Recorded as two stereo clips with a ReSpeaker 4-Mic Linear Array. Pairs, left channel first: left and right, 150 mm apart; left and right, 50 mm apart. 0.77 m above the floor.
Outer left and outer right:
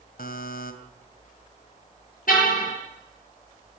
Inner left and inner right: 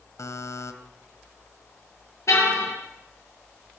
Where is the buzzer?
80° left, 2.5 m.